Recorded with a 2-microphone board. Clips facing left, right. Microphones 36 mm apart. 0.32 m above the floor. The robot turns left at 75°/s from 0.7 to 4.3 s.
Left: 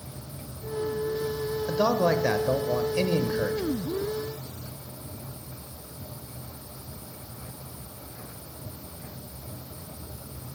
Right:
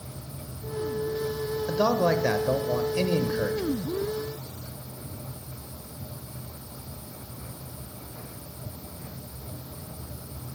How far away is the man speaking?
About 0.9 m.